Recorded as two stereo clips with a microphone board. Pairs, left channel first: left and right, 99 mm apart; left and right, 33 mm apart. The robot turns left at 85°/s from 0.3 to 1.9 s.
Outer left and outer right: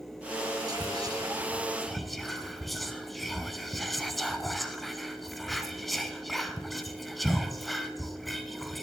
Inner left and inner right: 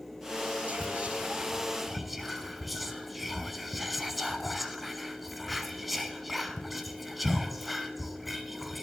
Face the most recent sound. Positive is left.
turn(degrees=0)  # may be behind; listen again after turning